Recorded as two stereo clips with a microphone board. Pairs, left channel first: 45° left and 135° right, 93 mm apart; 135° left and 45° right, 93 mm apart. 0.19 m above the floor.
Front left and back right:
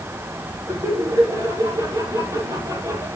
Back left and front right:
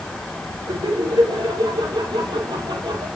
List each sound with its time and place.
0.7 s laughter: 85° right, 7.5 m